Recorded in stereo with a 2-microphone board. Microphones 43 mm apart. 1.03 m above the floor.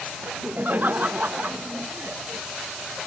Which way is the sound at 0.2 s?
45° right (ahead or behind).